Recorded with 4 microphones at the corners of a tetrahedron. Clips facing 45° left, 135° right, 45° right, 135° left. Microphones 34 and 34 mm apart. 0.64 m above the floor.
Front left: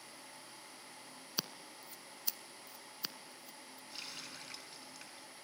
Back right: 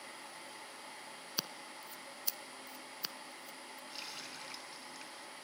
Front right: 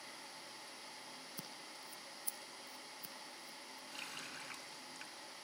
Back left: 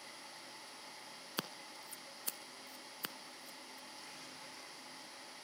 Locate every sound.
1.4 s scissors: 135° left, 1.4 m
3.9 s a running tap: 50° right, 5 m